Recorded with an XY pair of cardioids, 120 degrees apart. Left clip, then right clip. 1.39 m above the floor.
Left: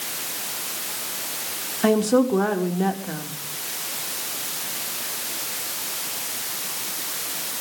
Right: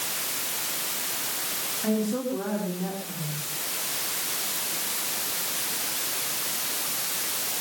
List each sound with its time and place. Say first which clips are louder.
1.8 s a woman speaking: left 11 dB; 70° left, 4.5 m